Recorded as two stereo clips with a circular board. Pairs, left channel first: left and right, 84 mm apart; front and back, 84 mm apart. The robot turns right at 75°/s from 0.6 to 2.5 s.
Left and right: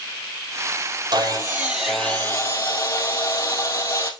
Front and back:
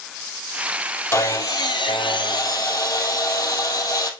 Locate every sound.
1.1 s sawing: 60° right, 2.0 m; by 4.1 s 45° left, 2.0 m